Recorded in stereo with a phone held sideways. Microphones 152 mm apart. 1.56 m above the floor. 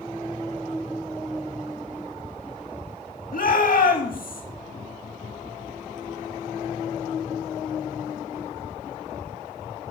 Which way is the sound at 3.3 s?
75° left (ahead or behind).